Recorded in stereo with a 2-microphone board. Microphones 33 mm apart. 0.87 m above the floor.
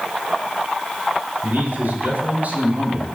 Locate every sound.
1.4 s a man speaking: 70° right (ahead or behind), 5 m